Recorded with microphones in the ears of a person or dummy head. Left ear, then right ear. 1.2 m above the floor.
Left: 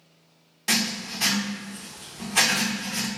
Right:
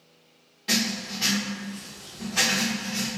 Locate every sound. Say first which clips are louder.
0.7 s writing: left 1 dB; 30° left (ahead or behind), 0.6 m